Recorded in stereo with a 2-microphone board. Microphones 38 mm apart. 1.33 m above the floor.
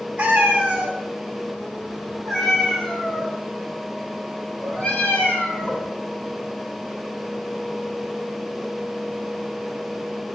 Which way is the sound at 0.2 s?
35° right (ahead or behind).